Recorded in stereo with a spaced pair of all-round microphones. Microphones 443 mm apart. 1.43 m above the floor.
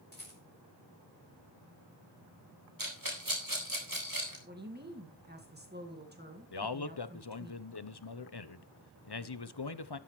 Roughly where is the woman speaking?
Right.